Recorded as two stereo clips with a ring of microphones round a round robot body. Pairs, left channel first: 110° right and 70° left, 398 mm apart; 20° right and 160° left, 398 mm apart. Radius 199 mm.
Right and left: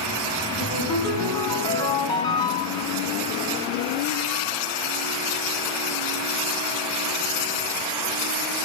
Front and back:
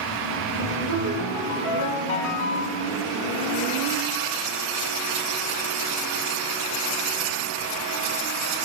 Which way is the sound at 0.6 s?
30° right.